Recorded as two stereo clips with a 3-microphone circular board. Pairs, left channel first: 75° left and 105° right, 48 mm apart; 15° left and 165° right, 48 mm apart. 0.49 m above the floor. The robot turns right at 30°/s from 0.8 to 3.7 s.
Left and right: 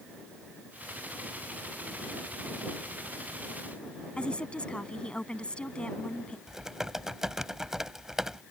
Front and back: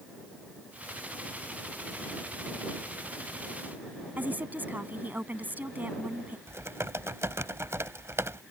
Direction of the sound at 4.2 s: 140° left.